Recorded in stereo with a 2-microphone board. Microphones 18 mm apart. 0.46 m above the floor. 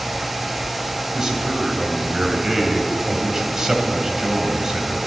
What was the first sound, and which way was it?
A man speaking, 25° right (ahead or behind).